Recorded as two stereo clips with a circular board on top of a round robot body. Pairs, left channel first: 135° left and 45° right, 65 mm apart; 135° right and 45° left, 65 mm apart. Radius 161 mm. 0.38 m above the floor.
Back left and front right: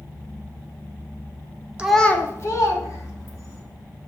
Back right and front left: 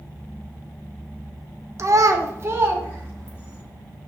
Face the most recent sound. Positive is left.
turn(degrees=110)